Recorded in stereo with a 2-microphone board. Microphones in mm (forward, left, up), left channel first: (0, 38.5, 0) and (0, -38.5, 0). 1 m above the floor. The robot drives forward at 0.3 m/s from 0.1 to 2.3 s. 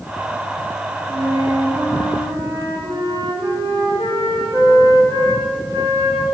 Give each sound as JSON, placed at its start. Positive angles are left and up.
{"t": 1.1, "sound": "a flute", "side_deg": -80, "distance_m": 5.5}